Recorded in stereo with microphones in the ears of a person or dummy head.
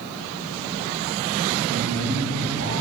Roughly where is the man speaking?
Right.